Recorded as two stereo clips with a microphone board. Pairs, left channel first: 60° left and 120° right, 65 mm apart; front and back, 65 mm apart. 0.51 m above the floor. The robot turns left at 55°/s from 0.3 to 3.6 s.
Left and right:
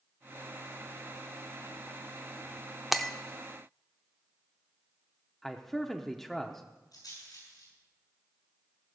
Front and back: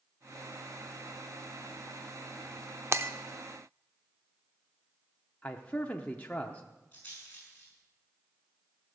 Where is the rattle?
70° left, 6.5 m.